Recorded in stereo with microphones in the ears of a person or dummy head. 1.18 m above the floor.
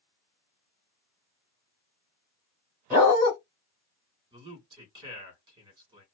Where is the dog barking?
10° right (ahead or behind), 1.3 m.